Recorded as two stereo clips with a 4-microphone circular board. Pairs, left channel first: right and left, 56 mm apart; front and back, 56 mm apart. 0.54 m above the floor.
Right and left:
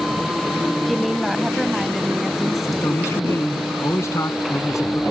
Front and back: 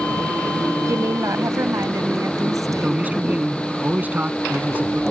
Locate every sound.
0.8 s a woman speaking: straight behind
2.7 s a man speaking: 120° right